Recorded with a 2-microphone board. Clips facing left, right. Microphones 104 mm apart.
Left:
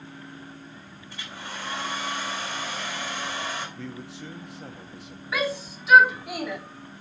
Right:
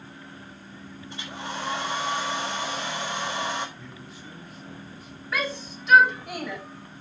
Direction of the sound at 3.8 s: 90° left.